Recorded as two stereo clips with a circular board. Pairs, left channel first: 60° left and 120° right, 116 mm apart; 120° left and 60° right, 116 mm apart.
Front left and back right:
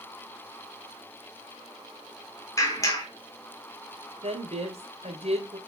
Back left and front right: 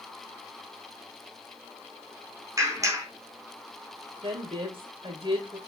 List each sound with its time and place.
2.6 s a clap: straight ahead, 4 m
4.2 s a woman speaking: 100° right, 4 m